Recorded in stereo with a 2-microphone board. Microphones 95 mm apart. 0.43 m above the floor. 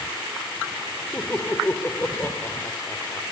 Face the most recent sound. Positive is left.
turn(degrees=25)  # may be behind; listen again after turning